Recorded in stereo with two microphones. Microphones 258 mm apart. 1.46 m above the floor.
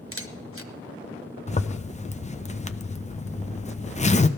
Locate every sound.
0.1 s a camera shutter: 55° right (ahead or behind), 1.0 m
1.5 s a zipper: 30° left (ahead or behind), 0.5 m